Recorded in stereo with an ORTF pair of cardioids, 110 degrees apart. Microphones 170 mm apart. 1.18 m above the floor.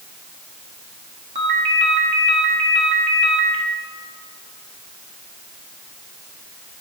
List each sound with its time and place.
1.4 s a ringtone: 45° right, 1.8 m